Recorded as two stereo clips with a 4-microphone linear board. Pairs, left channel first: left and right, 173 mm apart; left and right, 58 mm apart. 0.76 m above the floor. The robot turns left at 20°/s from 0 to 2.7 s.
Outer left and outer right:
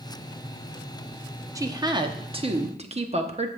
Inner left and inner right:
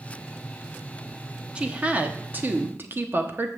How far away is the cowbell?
I don't hear a cowbell.